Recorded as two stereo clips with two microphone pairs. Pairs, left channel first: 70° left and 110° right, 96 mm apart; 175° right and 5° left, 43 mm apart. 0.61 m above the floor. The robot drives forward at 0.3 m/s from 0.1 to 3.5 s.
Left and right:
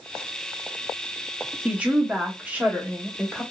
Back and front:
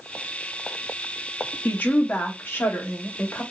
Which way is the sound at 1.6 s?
Straight behind.